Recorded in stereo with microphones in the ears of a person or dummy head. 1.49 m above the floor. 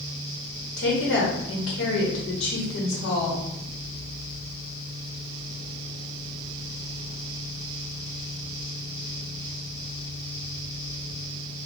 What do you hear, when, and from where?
0.8 s a woman speaking: 70° left (ahead or behind), 1.3 m